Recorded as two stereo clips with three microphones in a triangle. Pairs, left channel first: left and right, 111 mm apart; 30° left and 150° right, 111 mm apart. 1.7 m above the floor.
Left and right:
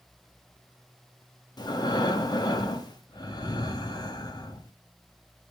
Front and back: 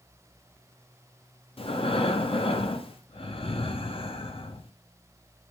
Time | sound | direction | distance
1.6 | breathing | 45° left | 0.5 m